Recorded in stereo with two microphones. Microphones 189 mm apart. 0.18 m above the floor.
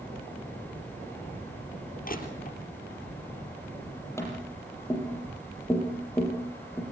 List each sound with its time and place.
2.0 s crushing: 50° left (ahead or behind), 4 m
4.2 s tapping: 15° left (ahead or behind), 6 m